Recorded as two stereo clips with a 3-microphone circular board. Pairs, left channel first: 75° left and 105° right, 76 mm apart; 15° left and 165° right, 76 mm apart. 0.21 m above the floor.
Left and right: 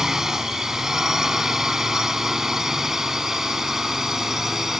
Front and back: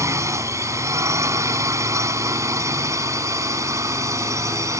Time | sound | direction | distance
0.0 | a drone | 175° left | ?